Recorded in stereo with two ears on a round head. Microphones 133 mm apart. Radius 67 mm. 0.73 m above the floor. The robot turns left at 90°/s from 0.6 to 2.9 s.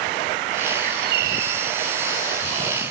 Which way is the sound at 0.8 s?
45° right.